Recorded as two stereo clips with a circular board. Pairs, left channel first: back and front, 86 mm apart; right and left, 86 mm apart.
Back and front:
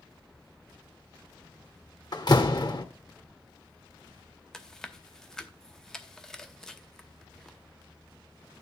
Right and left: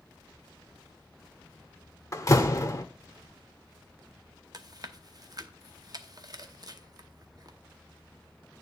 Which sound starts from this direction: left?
Chewing, at 4.5 s.